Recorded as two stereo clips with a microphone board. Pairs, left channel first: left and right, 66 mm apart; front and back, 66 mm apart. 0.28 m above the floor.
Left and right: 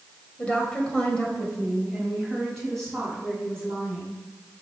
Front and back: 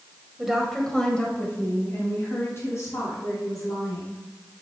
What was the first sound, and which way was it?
A woman speaking, 115° left.